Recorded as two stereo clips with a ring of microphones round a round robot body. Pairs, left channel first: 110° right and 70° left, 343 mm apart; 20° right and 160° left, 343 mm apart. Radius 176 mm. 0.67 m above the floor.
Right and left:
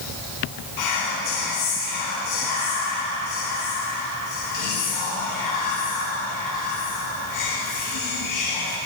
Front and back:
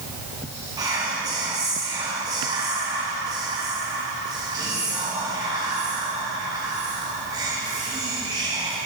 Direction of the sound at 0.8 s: 125° right.